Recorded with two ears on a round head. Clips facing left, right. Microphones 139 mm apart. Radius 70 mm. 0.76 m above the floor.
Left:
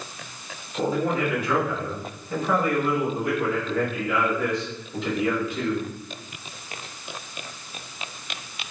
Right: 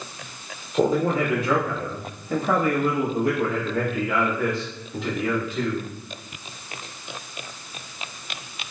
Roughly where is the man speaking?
Right.